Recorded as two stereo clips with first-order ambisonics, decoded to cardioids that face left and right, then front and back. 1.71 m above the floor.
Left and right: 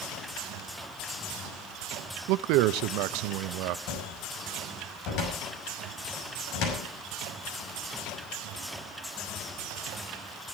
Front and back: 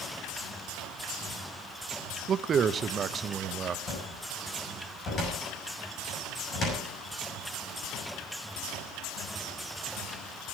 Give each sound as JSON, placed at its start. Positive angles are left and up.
{"t": 2.3, "sound": "a man speaking", "azimuth_deg": -115, "distance_m": 0.8}
{"t": 3.9, "sound": "a cupboard door", "azimuth_deg": 60, "distance_m": 6.0}